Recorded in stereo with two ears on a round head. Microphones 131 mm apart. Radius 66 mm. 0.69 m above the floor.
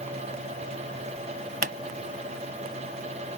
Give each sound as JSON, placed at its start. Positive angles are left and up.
{"t": 1.6, "sound": "a pop", "side_deg": -65}